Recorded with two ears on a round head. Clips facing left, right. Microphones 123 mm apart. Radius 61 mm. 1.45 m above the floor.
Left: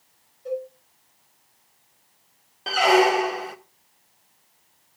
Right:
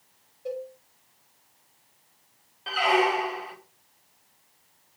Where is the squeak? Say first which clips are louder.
Left 5 dB; 50° left (ahead or behind), 0.8 m.